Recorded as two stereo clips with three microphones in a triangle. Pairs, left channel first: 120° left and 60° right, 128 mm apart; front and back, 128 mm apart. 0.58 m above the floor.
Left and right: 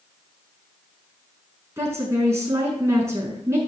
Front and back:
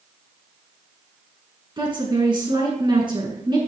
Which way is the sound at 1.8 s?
125° right.